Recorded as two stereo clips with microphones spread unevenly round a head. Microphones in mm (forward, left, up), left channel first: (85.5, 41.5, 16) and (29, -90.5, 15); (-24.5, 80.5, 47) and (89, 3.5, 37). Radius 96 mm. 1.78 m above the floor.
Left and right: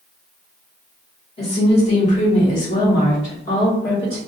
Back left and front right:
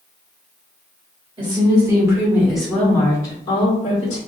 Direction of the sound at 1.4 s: 25° left.